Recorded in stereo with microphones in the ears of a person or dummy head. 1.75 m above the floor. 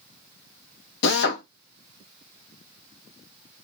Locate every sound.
1.0 s a drill: 65° left (ahead or behind), 1.2 m